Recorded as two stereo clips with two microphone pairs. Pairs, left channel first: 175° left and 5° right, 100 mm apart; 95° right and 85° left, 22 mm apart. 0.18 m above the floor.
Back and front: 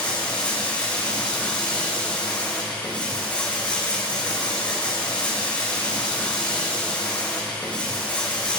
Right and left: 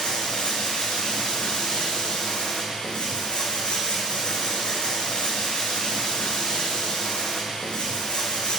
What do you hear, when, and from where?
0.0 s running water: 110° right, 3.5 m